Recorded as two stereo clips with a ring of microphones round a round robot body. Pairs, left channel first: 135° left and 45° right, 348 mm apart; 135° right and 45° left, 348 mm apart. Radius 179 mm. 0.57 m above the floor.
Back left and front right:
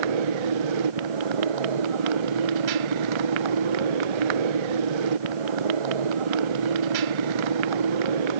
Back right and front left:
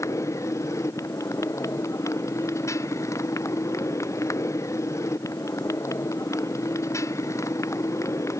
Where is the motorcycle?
55° right.